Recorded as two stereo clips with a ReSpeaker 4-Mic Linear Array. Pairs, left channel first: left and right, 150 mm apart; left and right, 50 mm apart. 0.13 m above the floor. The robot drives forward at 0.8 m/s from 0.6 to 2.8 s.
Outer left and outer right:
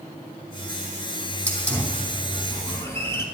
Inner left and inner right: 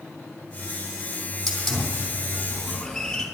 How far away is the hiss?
About 2.5 m.